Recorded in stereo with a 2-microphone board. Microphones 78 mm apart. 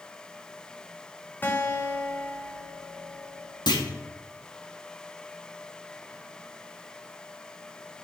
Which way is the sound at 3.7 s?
75° left (ahead or behind).